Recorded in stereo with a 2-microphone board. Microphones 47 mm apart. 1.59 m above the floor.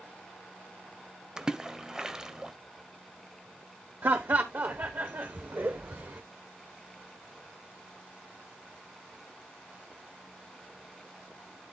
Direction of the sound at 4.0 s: 55° right (ahead or behind).